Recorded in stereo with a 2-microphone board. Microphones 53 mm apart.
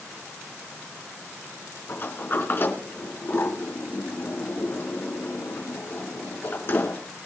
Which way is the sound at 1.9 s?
45° left (ahead or behind).